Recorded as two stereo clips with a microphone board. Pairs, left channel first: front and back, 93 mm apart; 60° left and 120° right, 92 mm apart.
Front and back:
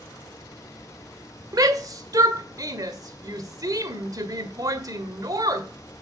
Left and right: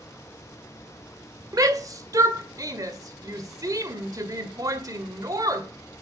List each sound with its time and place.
1.5 s a shout: 150° right, 1.8 m